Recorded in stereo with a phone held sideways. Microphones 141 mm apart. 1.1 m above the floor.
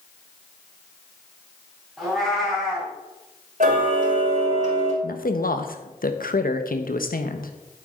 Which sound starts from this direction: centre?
A cat meowing, at 2.0 s.